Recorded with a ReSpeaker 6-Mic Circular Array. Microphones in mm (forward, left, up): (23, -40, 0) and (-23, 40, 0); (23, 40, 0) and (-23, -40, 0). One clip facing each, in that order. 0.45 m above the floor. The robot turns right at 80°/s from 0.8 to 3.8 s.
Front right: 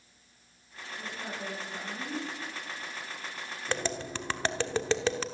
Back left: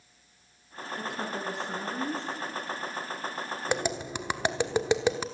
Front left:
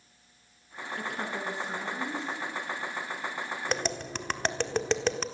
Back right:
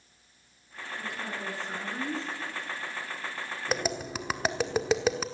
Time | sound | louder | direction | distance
1.0 | a woman speaking | back left 5 dB, front left 2 dB | 80° left | 6.5 m
3.7 | tapping | back left 2 dB, back right 3 dB | 155° left | 1.2 m